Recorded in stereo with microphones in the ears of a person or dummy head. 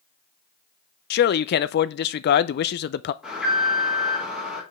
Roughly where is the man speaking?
Left.